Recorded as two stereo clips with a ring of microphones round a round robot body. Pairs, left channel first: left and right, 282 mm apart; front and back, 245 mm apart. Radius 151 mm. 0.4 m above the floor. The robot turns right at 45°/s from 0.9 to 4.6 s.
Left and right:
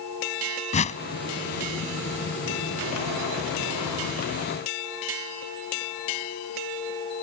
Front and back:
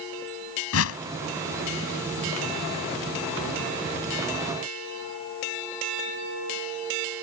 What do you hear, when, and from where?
0.7 s a whoosh: 25° left; by 1.0 s 30° left